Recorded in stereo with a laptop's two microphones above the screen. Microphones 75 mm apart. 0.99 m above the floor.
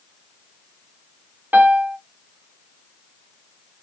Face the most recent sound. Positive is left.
turn(degrees=-20)  # may be behind; listen again after turning